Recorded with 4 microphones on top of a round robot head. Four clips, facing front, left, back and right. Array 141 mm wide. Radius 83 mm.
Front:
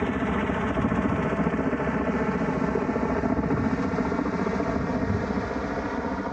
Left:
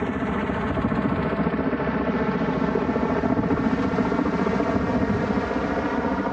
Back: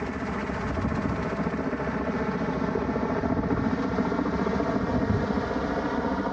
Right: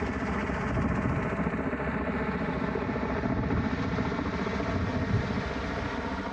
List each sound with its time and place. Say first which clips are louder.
0.0 s a helicopter: left 6 dB, front 5 dB; 55° left; by 6.3 s 100° left